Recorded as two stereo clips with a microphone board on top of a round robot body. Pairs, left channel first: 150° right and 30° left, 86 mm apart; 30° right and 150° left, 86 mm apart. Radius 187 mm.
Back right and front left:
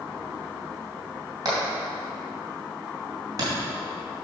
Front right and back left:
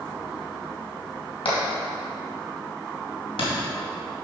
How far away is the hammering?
About 2.5 m.